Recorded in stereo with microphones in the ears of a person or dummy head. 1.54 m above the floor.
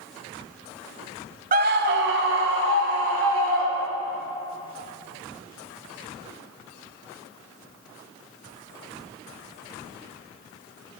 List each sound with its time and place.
1.5 s a scream: 50° right (ahead or behind), 0.7 m; by 4.2 s 75° right (ahead or behind), 4.5 m